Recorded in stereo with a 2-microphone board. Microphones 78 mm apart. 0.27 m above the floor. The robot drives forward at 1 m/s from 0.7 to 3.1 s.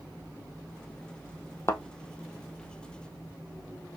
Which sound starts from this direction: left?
A thud, at 1.7 s.